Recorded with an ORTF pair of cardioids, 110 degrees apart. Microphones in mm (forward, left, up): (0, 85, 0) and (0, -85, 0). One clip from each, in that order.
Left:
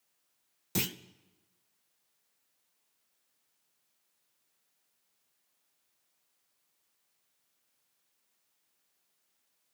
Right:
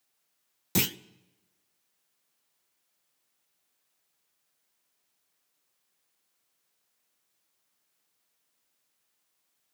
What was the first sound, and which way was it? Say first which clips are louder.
A clunk: right 5 dB; 25° right.